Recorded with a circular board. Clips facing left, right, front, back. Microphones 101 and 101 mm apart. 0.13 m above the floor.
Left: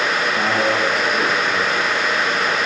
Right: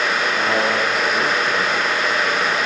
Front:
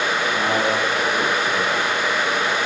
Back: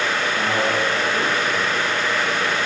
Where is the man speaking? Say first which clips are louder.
Left 1 dB, front 1 dB; 20° left, 3.5 m; by 2.6 s 10° right, 3.5 m.